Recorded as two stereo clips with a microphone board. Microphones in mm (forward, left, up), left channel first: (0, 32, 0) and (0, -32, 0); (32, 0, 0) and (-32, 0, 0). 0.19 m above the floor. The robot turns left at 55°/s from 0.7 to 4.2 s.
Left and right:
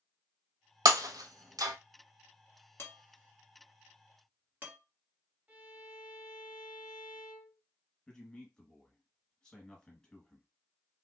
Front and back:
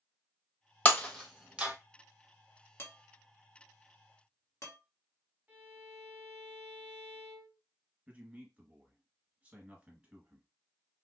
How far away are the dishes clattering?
About 1.5 m.